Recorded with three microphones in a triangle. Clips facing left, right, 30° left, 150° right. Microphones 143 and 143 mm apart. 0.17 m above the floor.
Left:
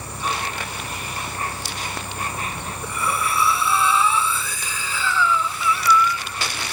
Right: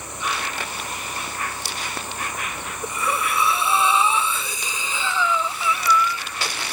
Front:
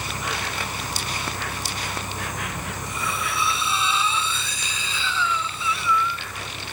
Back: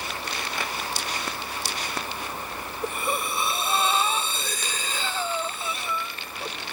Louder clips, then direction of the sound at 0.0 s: Left 2 dB, front 3 dB; 30° left.